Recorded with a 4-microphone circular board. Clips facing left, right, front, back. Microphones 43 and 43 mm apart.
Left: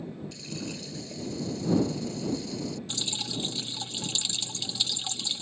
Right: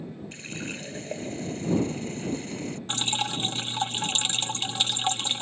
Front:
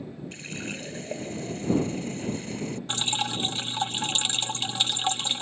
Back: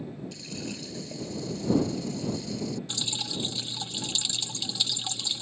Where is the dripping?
45° right.